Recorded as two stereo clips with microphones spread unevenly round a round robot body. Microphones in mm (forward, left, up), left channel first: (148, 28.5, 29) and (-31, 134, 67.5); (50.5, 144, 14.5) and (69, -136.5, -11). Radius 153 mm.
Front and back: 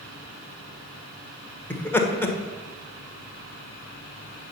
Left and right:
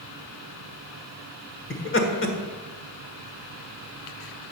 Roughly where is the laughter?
Ahead left.